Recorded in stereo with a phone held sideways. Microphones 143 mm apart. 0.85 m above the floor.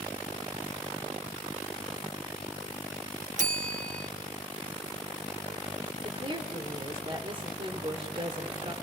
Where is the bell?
60° right (ahead or behind), 1.1 m.